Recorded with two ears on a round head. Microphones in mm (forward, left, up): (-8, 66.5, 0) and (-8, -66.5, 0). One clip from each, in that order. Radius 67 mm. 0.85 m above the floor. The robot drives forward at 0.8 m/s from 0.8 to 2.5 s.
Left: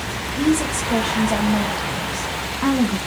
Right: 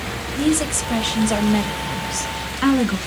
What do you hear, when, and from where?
0.4 s a woman speaking: 45° right (ahead or behind), 1.3 m; by 3.0 s 60° right (ahead or behind), 1.0 m